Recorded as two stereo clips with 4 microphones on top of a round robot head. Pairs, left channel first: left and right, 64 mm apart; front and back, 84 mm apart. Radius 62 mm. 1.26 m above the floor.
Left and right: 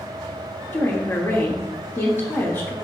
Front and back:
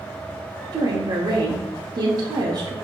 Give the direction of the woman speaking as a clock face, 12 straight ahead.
7 o'clock.